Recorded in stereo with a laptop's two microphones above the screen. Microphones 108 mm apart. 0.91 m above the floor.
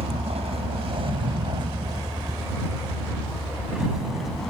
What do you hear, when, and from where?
0.0 s a vehicle: 80° right; by 4.5 s centre (ahead or behind)